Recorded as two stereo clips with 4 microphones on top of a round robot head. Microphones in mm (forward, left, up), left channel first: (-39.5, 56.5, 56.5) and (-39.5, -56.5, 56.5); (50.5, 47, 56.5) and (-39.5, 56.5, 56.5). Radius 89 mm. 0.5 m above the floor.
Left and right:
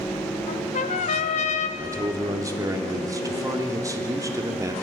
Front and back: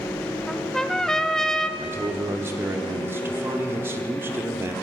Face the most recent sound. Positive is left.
turn(degrees=-135)